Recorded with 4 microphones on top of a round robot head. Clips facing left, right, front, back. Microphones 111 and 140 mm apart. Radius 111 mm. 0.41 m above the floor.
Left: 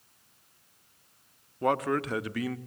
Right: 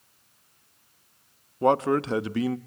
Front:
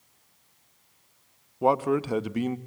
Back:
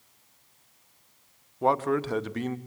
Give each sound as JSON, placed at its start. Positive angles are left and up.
{"t": 1.6, "sound": "a man speaking", "azimuth_deg": -65, "distance_m": 0.8}